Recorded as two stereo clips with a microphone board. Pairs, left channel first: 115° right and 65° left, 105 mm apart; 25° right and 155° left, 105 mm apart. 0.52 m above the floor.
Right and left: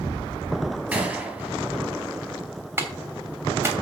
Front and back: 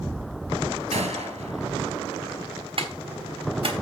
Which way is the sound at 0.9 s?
145° left.